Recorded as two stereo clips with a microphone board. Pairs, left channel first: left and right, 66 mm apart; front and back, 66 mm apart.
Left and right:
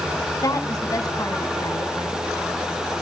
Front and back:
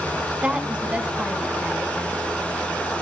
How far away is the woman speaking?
About 3 m.